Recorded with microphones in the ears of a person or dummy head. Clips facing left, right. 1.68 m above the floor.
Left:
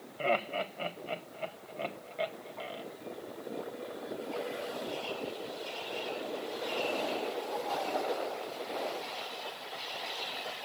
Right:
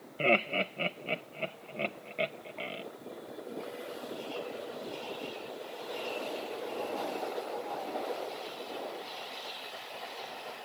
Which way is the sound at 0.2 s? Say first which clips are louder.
Right 2 dB; 30° right (ahead or behind).